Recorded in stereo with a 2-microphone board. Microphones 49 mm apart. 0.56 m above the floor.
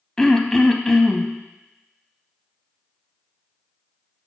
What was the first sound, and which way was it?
Throat clearing, 10° left (ahead or behind).